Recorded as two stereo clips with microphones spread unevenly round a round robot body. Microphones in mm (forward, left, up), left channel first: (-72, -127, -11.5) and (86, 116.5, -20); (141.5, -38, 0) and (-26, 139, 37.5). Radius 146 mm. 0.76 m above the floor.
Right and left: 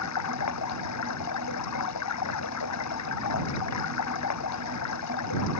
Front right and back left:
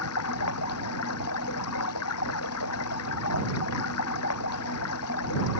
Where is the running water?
90° right.